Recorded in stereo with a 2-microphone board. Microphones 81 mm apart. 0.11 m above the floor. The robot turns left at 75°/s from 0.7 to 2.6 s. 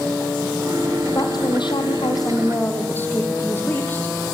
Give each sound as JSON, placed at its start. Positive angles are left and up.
{"t": 1.1, "sound": "a woman speaking", "azimuth_deg": 135, "distance_m": 4.0}